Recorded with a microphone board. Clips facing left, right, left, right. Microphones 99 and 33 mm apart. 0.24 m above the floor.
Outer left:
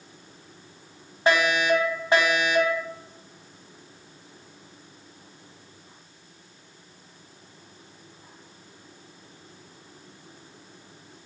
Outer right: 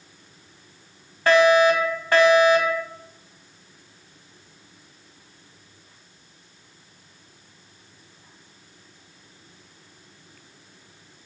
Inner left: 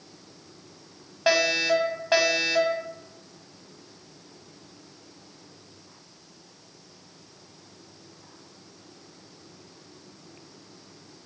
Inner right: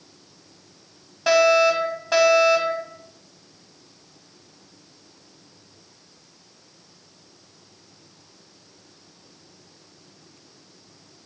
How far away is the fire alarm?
About 2.5 m.